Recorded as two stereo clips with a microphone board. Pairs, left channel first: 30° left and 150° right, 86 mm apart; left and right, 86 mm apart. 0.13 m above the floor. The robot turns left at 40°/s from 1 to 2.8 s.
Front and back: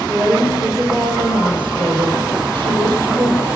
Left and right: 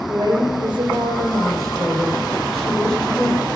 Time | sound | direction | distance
0.1 | a woman speaking | 115° right | 4 m